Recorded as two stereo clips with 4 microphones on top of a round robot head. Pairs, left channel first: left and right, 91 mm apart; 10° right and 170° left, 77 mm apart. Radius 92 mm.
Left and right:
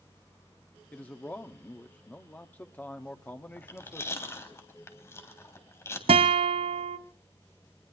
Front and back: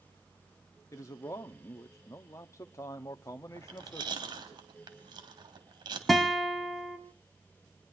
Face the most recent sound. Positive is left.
turn(degrees=-100)